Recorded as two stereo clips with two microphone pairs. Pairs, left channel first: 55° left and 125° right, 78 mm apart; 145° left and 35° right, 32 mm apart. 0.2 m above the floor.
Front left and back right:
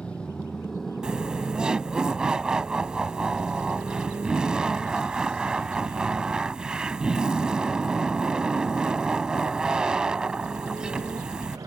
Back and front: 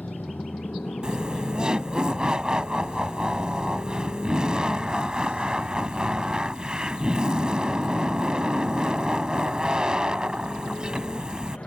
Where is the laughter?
55° right.